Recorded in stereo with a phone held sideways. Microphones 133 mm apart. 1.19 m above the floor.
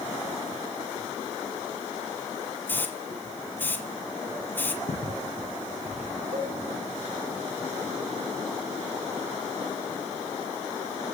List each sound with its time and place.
2.7 s a hiss: 15° left (ahead or behind), 1.6 m
4.9 s footsteps: 55° left (ahead or behind), 7.5 m; by 6.2 s 60° left (ahead or behind), 6 m
6.3 s a cowbell: 45° right (ahead or behind), 5 m